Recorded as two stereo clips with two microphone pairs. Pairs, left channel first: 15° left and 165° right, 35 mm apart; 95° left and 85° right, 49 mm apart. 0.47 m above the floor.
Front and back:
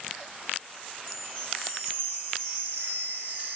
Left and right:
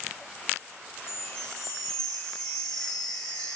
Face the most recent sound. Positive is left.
turn(degrees=165)